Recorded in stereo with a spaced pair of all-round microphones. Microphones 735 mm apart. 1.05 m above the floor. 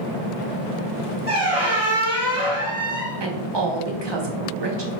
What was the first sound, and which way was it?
A squeak, 20° right (ahead or behind).